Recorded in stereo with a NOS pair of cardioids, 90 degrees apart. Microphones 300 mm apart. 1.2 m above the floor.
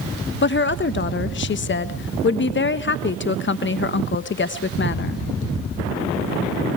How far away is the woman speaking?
About 1.4 m.